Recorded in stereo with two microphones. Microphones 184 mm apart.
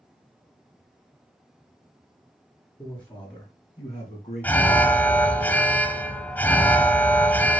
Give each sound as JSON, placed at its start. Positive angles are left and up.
{"t": 2.8, "sound": "a man speaking", "side_deg": 20, "distance_m": 3.0}
{"t": 4.4, "sound": "an alarm", "side_deg": 10, "distance_m": 0.6}